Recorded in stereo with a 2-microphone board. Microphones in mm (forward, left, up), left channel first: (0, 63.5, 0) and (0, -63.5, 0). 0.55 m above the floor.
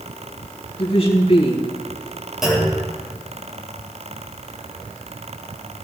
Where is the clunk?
5° right (ahead or behind), 6 m.